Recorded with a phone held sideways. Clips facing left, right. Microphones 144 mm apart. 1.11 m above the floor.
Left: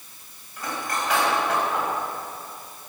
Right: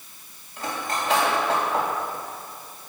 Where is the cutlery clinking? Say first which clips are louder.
Right 1 dB; 30° right (ahead or behind), 4.5 m.